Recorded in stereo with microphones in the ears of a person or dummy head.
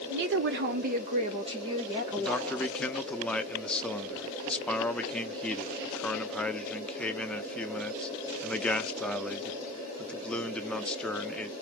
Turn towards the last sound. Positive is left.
turn(degrees=5)  # may be behind; listen again after turning